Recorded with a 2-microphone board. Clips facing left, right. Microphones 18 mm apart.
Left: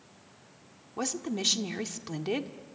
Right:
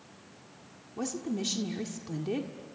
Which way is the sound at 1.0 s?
30° left (ahead or behind).